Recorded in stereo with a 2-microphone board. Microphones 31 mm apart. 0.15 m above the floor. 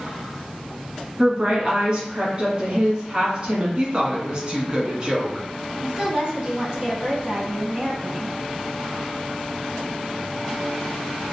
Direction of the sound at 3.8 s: 30° right (ahead or behind).